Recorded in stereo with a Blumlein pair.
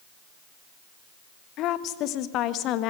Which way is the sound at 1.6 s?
35° left.